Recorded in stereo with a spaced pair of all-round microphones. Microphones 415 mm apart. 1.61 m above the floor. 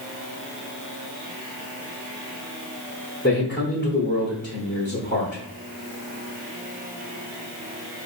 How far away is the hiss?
No hiss in this recording.